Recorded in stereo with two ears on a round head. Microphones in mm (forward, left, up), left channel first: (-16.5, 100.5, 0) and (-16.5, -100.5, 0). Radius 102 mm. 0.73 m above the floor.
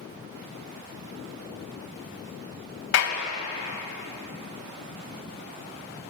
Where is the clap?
55° left (ahead or behind), 3.5 m.